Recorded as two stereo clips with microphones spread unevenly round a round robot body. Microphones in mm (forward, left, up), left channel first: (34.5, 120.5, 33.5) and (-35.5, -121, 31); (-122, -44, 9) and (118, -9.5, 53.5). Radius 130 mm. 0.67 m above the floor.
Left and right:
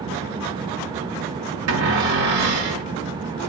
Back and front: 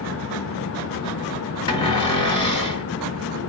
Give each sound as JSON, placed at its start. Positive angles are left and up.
{"t": 1.7, "sound": "a cupboard door", "azimuth_deg": -105, "distance_m": 1.7}